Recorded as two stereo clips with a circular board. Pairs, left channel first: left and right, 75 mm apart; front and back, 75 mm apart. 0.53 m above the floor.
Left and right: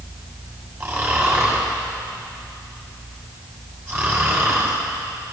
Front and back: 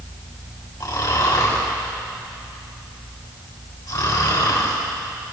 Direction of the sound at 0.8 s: 40° right.